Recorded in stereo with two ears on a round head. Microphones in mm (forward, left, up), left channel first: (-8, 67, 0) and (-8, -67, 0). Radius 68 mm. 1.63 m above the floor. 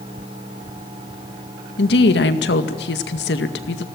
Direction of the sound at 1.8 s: 80° left.